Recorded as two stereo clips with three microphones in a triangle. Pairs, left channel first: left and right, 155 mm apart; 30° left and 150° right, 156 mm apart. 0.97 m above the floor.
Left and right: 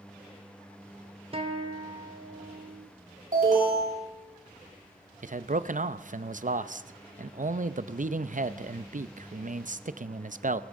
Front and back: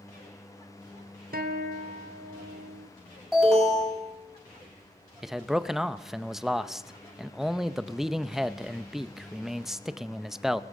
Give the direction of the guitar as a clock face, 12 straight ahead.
5 o'clock.